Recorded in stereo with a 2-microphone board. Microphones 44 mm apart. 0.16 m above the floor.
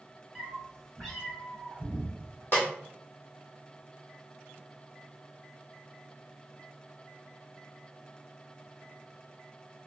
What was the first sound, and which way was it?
A cat meowing, 5° left (ahead or behind).